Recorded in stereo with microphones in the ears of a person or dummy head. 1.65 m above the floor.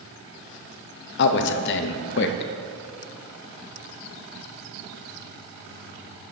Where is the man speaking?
65° left (ahead or behind), 0.6 m.